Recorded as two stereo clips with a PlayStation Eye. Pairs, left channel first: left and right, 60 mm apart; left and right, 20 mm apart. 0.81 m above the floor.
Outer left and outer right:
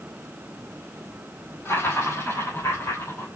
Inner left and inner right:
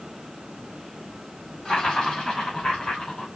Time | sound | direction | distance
1.6 | laughter | 40° left (ahead or behind) | 4.5 m